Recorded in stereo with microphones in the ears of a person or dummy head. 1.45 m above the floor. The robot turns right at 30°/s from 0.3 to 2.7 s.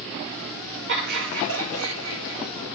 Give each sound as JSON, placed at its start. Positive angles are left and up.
{"t": 0.9, "sound": "laughter", "azimuth_deg": -125, "distance_m": 2.0}